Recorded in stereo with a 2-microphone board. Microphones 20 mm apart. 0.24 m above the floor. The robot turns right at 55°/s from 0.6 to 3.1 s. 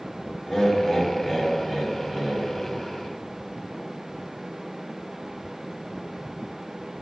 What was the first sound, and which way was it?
Laughter, 5° left (ahead or behind).